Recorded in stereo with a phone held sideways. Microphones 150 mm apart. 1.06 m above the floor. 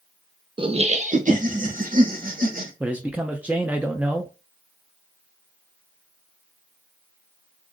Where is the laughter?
30° right (ahead or behind), 0.9 m; by 2.7 s 65° right (ahead or behind), 2.5 m.